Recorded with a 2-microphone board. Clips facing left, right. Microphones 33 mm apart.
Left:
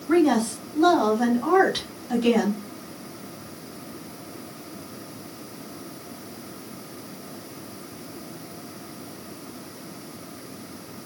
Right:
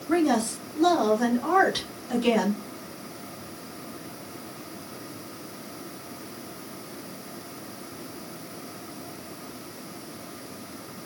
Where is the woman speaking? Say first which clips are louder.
Left 3 dB; 40° left (ahead or behind), 1.8 m; by 2.6 s 5° right (ahead or behind), 1.5 m.